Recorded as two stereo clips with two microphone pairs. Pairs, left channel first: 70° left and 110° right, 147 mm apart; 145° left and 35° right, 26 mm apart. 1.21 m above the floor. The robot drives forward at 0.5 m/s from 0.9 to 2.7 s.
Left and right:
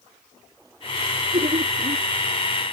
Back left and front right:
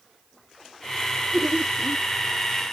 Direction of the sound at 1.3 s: 95° right.